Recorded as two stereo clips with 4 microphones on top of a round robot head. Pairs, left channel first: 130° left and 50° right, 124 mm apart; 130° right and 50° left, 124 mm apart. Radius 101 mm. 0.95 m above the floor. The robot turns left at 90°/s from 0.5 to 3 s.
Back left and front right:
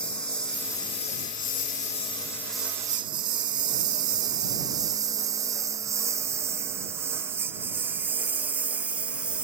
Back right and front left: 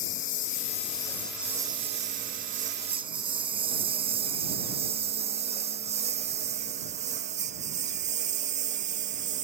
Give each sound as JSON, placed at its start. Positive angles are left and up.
{"t": 0.0, "sound": "a lawn mower", "azimuth_deg": -150}